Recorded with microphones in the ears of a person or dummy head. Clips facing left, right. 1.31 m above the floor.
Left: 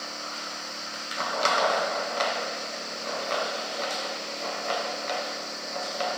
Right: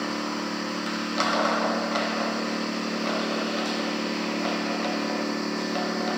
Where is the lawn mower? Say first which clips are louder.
Right 11 dB; 85° right; by 6.2 s 90° right.